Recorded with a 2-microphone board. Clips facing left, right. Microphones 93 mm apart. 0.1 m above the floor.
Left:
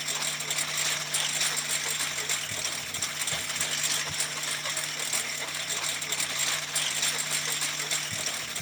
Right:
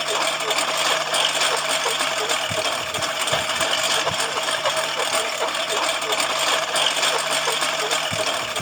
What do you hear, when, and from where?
0.0 s a lawn mower: 70° right (ahead or behind)